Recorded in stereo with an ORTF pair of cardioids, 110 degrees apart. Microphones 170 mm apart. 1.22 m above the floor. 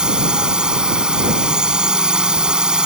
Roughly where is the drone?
Ahead.